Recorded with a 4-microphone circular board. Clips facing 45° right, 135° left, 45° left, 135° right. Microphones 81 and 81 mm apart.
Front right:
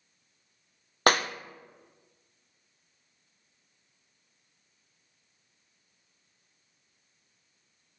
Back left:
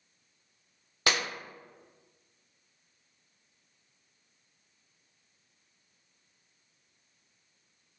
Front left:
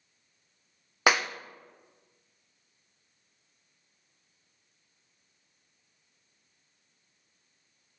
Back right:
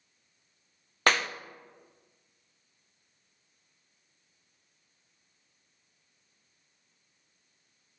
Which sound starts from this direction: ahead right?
A clap, at 1.1 s.